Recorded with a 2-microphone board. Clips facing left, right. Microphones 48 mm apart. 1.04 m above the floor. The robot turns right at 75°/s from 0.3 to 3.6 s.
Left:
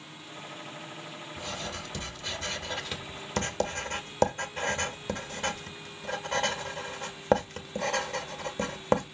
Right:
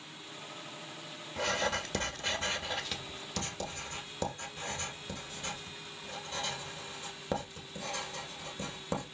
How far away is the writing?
About 1.8 m.